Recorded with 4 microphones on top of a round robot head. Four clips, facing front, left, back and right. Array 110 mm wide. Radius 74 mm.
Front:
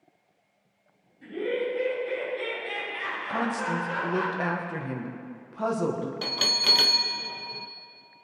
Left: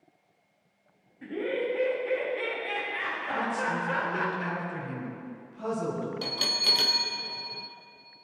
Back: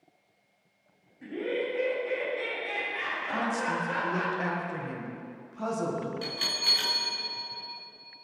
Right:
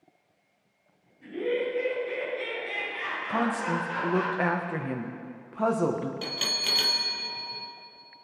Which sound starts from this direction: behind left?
Laughter, at 1.2 s.